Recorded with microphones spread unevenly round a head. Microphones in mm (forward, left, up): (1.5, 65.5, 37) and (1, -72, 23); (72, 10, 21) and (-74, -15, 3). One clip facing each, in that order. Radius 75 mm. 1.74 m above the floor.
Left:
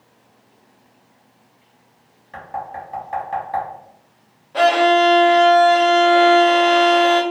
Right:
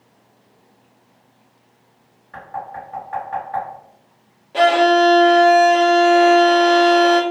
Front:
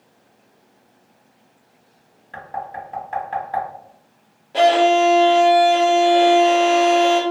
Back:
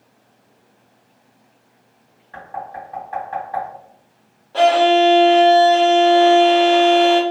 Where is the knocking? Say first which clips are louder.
Left 1 dB, front 1 dB; 40° left, 1.2 m.